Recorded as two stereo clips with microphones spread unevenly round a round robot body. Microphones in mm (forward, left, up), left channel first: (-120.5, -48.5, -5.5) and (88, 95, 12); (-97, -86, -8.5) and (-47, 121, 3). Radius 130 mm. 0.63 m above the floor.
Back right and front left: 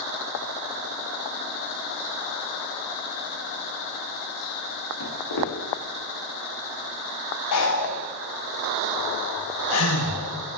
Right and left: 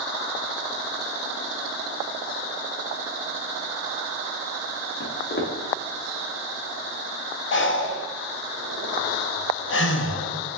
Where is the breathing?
125° right, 0.7 m.